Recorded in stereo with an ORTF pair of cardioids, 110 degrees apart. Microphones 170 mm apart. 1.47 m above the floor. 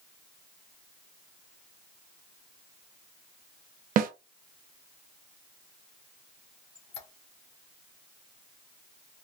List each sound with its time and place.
4.0 s a snare drum: 55° right, 0.7 m
6.8 s a squeak: 40° left, 1.2 m